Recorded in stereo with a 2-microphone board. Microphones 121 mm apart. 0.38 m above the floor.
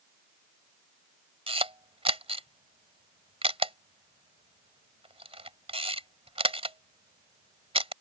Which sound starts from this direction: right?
A camera shutter, at 1.5 s.